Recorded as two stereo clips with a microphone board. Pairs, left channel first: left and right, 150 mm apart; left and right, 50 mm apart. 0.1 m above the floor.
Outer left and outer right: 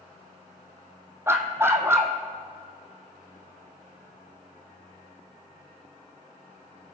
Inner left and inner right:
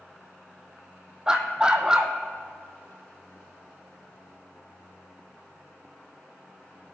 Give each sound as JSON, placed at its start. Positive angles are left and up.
{"t": 1.3, "sound": "a dog barking", "side_deg": -15, "distance_m": 1.0}